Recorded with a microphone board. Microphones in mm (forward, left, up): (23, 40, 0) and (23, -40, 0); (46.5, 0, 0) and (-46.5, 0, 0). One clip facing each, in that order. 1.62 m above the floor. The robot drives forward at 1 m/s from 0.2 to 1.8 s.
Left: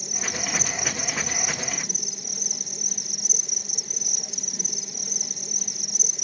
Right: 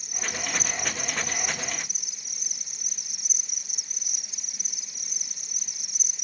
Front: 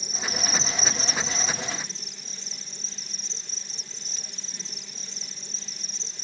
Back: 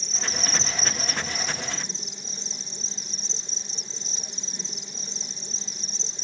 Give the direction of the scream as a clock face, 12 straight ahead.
No scream in this recording.